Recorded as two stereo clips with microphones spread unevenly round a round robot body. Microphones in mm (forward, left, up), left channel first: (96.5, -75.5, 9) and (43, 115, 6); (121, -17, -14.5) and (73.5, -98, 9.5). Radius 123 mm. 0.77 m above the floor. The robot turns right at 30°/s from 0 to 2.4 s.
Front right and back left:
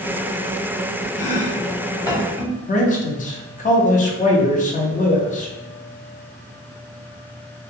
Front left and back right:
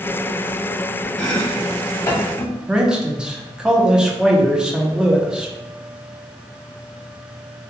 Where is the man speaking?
30° right, 0.7 m.